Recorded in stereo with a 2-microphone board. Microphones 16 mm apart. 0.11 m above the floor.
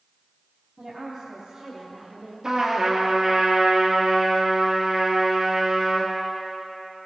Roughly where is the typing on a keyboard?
No typing on a keyboard in this recording.